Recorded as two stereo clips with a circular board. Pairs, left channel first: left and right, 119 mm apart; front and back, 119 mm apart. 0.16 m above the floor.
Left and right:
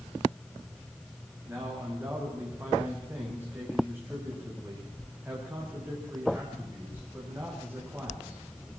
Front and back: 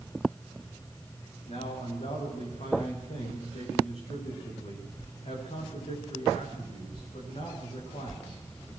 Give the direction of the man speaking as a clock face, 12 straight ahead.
1 o'clock.